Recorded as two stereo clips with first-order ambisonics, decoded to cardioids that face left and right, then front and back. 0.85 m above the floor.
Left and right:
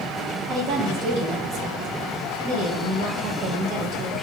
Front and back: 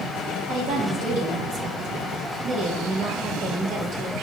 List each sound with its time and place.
0.5 s a woman speaking: 135° right, 1.1 m